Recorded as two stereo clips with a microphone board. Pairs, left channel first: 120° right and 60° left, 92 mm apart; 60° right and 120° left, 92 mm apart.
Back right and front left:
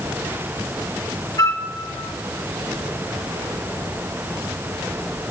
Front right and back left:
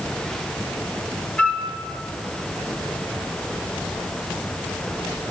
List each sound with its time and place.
1.4 s a flute: 130° right, 1.0 m